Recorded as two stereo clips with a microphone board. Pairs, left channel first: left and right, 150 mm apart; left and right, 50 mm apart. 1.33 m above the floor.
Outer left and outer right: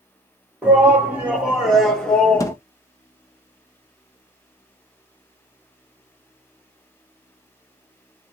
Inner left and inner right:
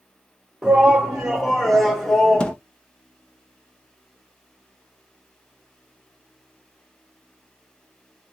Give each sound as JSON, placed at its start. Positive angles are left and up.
{"t": 0.6, "sound": "a shout", "side_deg": -15, "distance_m": 2.0}
{"t": 2.4, "sound": "a thud", "side_deg": 25, "distance_m": 0.6}